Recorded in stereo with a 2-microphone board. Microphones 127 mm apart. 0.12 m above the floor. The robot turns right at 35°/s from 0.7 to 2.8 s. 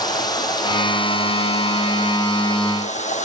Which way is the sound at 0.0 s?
35° left.